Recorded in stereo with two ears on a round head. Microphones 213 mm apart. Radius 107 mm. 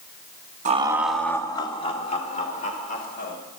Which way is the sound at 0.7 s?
30° right (ahead or behind).